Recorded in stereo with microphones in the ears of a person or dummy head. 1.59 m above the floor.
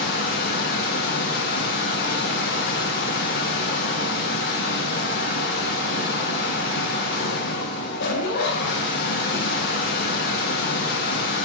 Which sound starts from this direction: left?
A machine running, at 0.0 s.